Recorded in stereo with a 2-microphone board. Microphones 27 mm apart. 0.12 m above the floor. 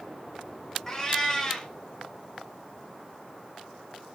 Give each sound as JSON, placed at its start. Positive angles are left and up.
{"t": 0.9, "sound": "a cat meowing", "side_deg": 20, "distance_m": 0.8}